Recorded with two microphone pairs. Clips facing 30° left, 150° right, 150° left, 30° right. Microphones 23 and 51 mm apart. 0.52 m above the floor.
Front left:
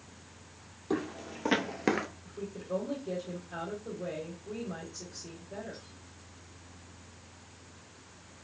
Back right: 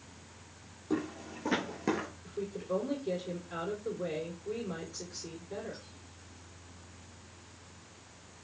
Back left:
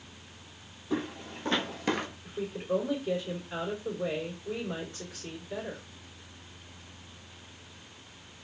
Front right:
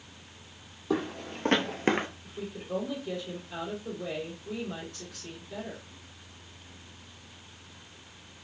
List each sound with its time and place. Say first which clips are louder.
0.9 s footsteps: front left 1 dB, front right 3 dB; 25° right, 1.2 m; by 2.1 s 25° left, 0.6 m
2.2 s a woman speaking: back right 3 dB, back left 5 dB; 140° right, 2 m